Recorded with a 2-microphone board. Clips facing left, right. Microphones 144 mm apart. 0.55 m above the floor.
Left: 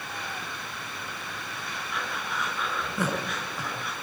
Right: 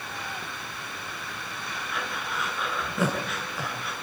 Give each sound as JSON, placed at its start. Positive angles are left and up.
{"t": 1.9, "sound": "breathing", "side_deg": 0, "distance_m": 7.0}